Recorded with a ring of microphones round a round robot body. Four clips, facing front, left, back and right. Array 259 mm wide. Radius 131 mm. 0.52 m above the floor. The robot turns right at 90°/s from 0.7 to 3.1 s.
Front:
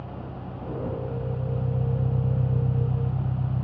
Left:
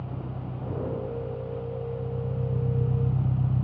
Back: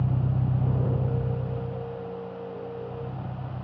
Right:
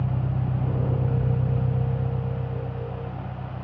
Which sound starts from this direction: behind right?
An engine running, at 0.0 s.